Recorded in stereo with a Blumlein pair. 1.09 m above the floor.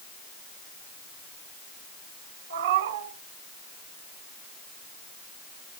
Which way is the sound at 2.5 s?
60° right.